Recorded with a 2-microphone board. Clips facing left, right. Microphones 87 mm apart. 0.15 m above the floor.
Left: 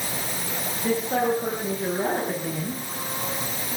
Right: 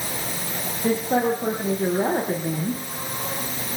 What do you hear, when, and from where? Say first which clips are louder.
0.8 s a woman speaking: right 2 dB; 25° right (ahead or behind), 4 m